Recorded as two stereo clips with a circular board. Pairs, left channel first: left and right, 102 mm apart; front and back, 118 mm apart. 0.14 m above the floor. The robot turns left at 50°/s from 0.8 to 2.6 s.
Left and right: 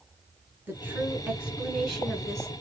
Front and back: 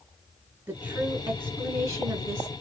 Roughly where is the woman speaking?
Behind right.